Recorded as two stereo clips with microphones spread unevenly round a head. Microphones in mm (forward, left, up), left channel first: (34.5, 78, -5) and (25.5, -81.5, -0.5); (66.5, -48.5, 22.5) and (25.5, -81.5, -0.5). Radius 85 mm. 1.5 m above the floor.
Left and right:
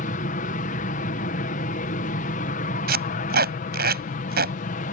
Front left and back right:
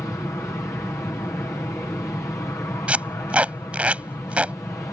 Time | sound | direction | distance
0.0 | an aircraft | 100° left | ?
2.9 | tape being pulled | 70° right | ?